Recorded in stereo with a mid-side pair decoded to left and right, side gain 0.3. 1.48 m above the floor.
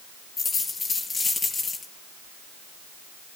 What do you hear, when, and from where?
0.4 s a dropped coin: 50° left, 4.5 m